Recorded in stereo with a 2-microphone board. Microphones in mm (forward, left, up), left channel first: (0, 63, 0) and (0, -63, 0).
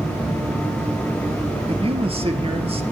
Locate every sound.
1.7 s a man speaking: 50° right (ahead or behind), 3 m